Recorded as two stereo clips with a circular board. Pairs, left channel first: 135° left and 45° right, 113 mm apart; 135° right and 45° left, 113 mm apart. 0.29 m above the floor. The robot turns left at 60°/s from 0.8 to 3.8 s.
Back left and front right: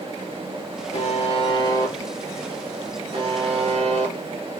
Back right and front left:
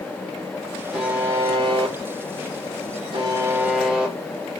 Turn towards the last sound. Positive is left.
turn(degrees=-40)